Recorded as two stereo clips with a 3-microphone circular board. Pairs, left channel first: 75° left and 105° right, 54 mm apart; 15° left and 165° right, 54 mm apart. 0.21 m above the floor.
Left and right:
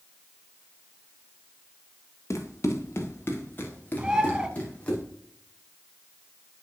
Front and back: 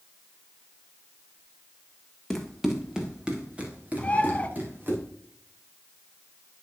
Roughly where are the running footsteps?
Left.